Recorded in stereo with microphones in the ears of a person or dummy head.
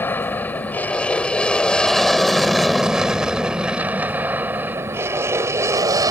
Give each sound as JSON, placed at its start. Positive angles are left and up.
{"t": 0.0, "sound": "an aircraft", "side_deg": 15}